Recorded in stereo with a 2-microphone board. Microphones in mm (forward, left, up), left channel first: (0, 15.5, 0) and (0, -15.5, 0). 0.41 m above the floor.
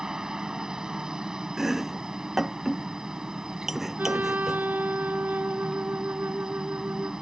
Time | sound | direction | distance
0.0 | a helicopter | 20° right (ahead or behind) | ?
1.6 | chopping | 5° right (ahead or behind) | ?
4.0 | a trumpet | 85° right | ?